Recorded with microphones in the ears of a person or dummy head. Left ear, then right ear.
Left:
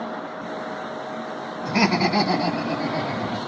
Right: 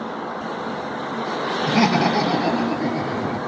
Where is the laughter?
70° left (ahead or behind), 2.5 m; by 3.4 s 75° left (ahead or behind), 3.5 m.